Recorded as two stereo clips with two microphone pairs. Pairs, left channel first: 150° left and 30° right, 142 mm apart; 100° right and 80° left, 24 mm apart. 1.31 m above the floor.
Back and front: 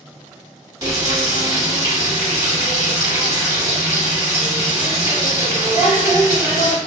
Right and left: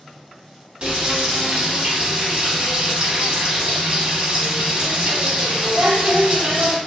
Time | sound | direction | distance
0.8 | frying | 30° left | 1.1 m